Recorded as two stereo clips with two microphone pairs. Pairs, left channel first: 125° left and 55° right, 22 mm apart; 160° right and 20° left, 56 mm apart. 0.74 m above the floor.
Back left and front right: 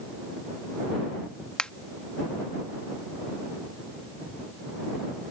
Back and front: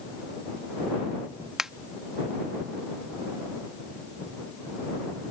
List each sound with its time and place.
1.6 s a finger snap: 100° left